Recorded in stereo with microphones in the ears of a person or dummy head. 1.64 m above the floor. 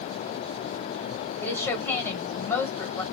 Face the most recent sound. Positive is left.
turn(degrees=15)  # may be behind; listen again after turning